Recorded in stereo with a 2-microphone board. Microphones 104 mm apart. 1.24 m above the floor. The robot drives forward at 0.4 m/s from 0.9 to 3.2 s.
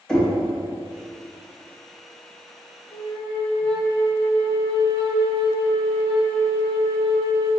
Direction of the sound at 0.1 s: 5° left (ahead or behind).